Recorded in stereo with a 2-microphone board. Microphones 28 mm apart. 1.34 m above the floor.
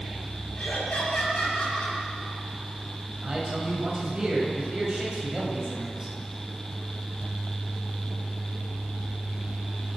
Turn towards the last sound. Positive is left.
turn(degrees=-20)  # may be behind; listen again after turning